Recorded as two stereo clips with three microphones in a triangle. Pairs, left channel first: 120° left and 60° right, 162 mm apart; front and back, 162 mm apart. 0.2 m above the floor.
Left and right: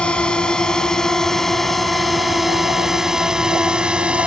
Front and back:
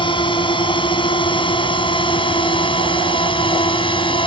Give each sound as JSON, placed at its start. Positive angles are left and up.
{"t": 0.0, "sound": "a drone", "azimuth_deg": 40}